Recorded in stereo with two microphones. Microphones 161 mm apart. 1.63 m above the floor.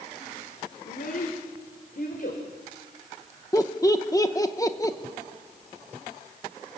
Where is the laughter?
20° left (ahead or behind), 1.4 m.